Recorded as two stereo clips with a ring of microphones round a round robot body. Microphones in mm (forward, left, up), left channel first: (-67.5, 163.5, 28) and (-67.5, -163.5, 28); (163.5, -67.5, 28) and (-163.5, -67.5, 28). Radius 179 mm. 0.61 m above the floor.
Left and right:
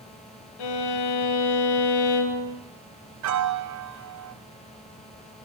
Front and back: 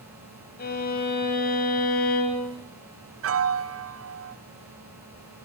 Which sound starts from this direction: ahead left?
A violin, at 0.6 s.